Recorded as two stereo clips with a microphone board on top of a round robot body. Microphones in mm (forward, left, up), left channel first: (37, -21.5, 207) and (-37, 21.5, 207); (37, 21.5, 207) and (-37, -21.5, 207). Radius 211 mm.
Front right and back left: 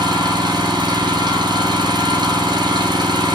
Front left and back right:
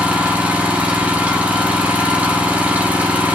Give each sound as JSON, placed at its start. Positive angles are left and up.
{"t": 0.0, "sound": "an engine running", "azimuth_deg": 140, "distance_m": 0.8}